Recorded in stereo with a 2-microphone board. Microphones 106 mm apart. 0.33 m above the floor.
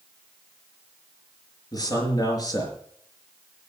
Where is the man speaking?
35° left (ahead or behind), 4.5 m.